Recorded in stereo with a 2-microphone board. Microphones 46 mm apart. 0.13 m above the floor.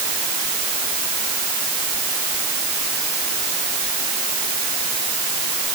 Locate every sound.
Only background noise.